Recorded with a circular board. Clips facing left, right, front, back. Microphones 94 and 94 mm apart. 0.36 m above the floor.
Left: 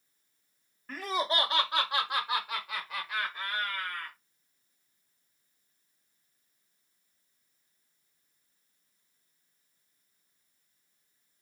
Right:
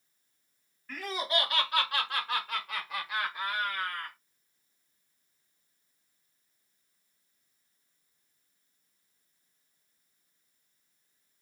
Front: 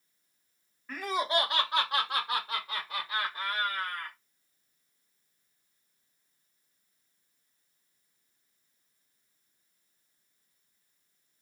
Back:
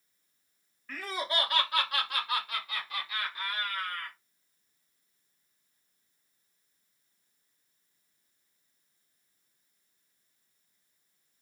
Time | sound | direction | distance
0.9 | laughter | 65° left | 1.6 m